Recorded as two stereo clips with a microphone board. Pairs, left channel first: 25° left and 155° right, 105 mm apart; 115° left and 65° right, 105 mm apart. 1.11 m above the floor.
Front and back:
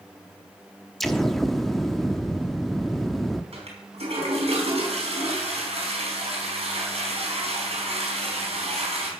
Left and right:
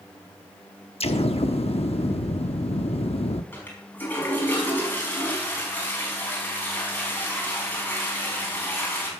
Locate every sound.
1.0 s an explosion: 110° left, 0.9 m
3.5 s a toilet flushing: 175° right, 4.5 m